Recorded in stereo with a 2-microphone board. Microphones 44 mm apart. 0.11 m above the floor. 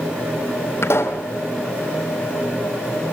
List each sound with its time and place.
0.8 s a pop: 70° left (ahead or behind), 3 m